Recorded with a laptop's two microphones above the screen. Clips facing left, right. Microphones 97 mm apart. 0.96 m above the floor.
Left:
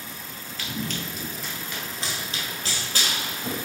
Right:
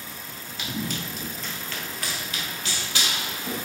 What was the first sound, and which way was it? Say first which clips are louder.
Running footsteps: right 1 dB; 20° right (ahead or behind).